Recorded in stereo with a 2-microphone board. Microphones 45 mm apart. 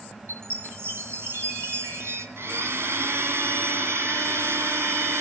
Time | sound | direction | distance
0.3 | a chime | 70° right (ahead or behind) | 2.5 m
2.4 | a blender | 70° right (ahead or behind) | 2 m